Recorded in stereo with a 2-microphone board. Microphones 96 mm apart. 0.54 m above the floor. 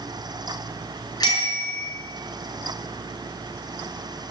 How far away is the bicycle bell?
About 5 m.